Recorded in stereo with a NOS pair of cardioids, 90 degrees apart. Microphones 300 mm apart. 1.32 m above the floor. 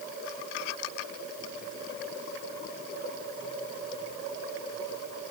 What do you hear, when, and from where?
Only background noise.